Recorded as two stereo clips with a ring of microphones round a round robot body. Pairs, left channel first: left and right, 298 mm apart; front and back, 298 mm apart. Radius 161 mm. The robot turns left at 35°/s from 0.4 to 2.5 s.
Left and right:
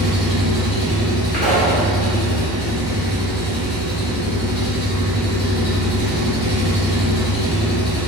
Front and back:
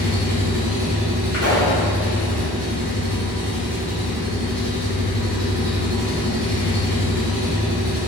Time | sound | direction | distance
0.0 | an engine running | 155° left | 1.0 m
1.3 | a pop | 5° left | 1.1 m